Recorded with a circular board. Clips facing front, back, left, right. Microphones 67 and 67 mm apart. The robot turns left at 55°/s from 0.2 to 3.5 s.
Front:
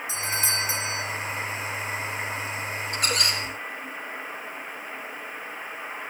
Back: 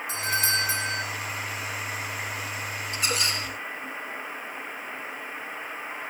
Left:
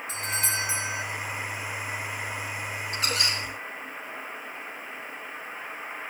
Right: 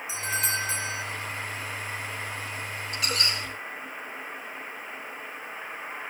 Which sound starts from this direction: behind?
A doorbell, at 0.1 s.